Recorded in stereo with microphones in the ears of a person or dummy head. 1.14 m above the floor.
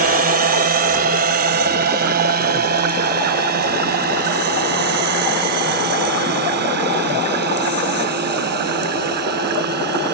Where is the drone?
45° right (ahead or behind); by 10.1 s 50° right (ahead or behind).